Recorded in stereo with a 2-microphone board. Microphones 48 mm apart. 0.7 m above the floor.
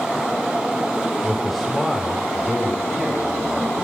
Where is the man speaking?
5° right (ahead or behind), 3 m; by 3.7 s 20° right (ahead or behind), 4 m.